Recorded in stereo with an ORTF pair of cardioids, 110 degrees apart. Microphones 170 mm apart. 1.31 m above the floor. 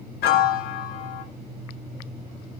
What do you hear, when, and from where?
0.2 s a piano: 70° left, 0.8 m